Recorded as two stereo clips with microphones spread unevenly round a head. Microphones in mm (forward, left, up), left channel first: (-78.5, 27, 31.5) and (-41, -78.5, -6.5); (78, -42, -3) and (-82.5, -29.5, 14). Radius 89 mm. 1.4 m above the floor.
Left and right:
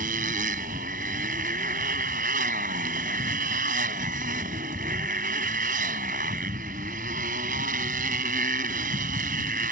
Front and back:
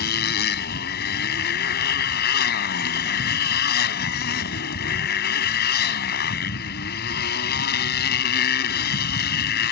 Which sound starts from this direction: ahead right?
A motorcycle, at 0.0 s.